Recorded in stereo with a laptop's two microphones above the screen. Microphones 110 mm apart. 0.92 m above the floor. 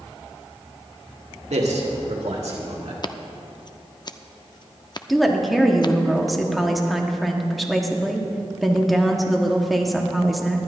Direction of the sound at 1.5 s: 80° right.